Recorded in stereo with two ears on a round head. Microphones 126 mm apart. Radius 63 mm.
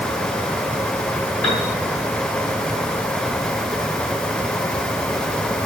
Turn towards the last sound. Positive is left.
turn(degrees=10)  # may be behind; listen again after turning